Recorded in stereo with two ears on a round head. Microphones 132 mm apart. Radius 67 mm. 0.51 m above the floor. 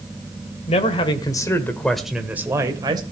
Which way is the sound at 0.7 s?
40° left (ahead or behind).